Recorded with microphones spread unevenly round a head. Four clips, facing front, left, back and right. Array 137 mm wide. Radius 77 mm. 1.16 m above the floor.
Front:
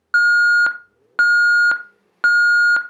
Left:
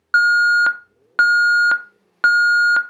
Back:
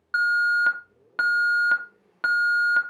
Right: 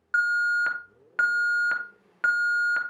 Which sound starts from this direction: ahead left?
An alarm, at 0.1 s.